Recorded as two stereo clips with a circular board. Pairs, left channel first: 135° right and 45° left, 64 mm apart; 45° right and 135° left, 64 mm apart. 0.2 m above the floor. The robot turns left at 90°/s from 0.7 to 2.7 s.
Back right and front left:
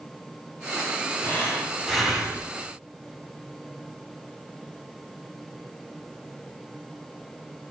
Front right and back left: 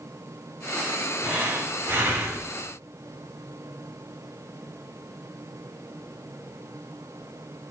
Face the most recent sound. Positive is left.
turn(degrees=70)